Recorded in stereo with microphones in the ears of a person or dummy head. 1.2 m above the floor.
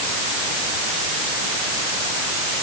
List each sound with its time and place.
Only background noise.